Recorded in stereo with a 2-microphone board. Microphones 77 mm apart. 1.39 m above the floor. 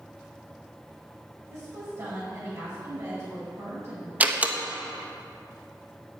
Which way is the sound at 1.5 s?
40° right (ahead or behind).